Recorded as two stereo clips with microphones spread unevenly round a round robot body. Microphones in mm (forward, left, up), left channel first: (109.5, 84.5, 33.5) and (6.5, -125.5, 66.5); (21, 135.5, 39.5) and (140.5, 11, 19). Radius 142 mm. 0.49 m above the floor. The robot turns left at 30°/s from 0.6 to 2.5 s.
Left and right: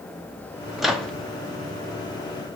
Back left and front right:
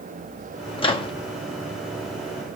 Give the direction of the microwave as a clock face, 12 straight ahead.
7 o'clock.